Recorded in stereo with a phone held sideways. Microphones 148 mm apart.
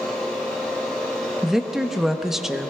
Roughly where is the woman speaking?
Centre.